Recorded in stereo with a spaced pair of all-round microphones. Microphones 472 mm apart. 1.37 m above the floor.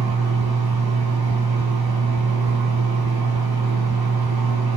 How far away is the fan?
About 0.7 m.